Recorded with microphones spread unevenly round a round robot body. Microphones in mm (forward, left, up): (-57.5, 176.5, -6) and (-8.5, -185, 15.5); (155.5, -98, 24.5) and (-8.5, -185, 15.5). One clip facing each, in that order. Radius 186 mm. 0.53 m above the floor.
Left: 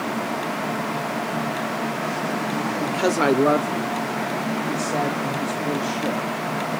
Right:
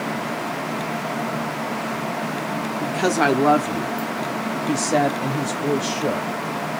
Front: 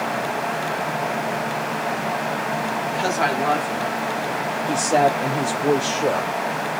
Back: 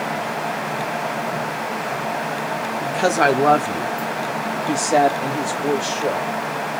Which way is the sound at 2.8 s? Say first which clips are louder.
Right 1 dB, back 8 dB; 175° right.